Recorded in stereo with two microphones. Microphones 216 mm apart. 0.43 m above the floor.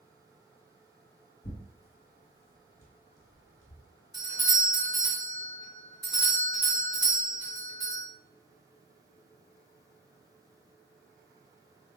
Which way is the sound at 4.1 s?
20° right (ahead or behind).